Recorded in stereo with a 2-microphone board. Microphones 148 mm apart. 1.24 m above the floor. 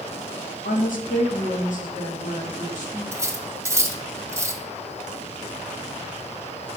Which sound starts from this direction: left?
A woman speaking, at 0.7 s.